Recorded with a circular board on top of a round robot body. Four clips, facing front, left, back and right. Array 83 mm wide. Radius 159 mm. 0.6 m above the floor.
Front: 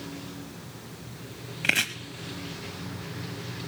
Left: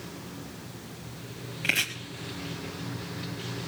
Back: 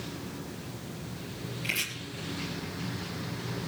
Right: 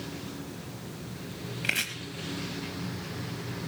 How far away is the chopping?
About 0.6 m.